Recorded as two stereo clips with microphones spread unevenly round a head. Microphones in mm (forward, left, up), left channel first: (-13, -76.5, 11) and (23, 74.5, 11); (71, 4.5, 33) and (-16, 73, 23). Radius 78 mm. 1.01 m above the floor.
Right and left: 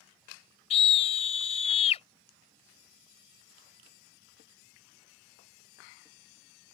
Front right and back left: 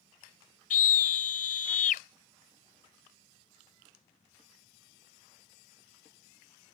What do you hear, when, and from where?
0.7 s a scream: 50° right